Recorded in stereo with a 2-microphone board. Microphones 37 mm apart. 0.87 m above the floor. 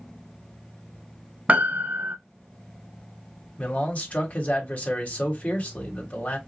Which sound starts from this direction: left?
A man speaking, at 3.6 s.